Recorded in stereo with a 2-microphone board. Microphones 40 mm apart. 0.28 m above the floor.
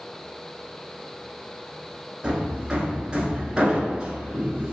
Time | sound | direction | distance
2.2 | hammering | 20° right (ahead or behind) | 1.0 m